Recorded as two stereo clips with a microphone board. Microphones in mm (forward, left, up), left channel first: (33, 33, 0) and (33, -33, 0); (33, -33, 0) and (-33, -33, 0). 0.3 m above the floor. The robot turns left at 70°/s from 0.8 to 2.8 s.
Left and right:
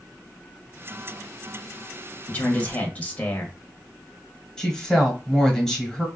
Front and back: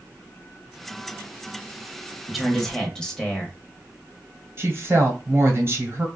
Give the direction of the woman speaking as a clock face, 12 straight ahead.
6 o'clock.